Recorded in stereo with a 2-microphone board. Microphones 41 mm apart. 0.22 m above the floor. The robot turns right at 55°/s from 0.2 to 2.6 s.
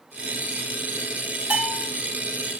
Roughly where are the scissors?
No scissors in this recording.